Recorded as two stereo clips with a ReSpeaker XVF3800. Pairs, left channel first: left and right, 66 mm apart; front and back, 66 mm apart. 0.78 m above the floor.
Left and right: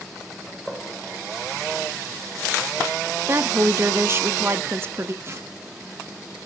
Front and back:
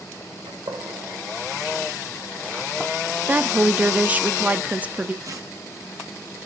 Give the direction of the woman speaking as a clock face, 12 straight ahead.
4 o'clock.